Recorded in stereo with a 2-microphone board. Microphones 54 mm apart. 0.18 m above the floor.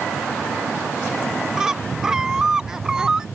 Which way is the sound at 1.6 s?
10° right (ahead or behind).